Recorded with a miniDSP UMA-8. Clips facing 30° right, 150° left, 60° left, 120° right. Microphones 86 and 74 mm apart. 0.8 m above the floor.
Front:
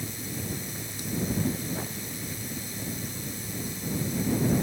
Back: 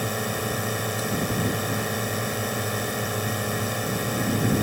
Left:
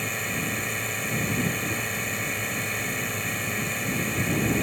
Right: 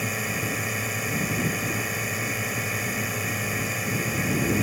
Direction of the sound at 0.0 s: 155° left.